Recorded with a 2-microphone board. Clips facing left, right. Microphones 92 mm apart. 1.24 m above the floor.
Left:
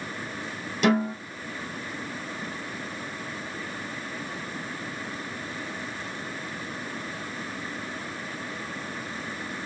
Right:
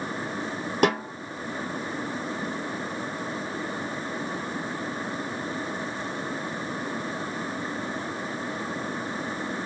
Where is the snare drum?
60° right (ahead or behind), 2.5 m.